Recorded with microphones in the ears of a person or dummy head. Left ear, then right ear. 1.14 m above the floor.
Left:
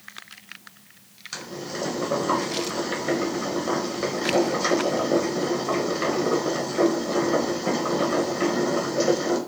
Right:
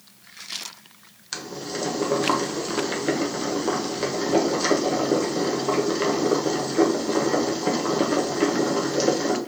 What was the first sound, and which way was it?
Boiling, 20° right (ahead or behind).